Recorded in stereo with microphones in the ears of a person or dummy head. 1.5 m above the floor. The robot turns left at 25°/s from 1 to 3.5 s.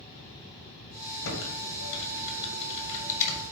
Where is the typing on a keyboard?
85° left, 2.5 m; by 3.4 s 35° left (ahead or behind), 2.5 m.